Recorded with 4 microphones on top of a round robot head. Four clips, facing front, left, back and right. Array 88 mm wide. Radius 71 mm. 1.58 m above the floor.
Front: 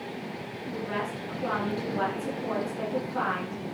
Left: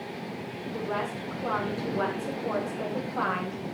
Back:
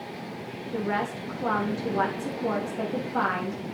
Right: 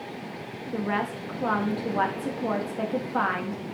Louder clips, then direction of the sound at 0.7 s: Right 4 dB, back 4 dB; 115° right.